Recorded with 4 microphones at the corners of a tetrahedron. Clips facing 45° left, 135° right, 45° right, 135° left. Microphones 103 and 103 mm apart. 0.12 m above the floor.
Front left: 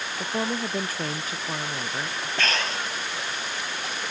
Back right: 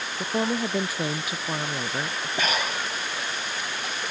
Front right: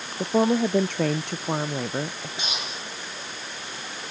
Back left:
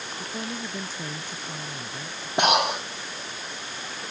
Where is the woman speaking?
55° right; by 2.3 s 60° right.